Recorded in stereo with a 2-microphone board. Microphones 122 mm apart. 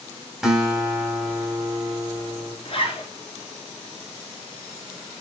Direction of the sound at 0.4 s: 5° right (ahead or behind).